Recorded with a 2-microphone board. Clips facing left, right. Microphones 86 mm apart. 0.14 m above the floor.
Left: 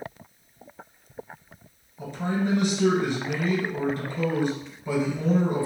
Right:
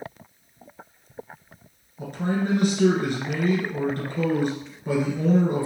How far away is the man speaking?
About 1.9 m.